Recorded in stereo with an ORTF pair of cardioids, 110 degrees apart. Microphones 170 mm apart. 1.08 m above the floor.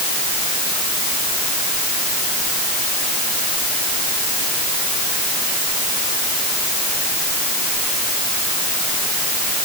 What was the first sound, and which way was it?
Only background noise.